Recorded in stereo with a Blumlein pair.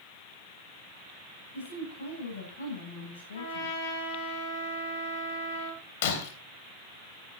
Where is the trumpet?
55° left, 8 m.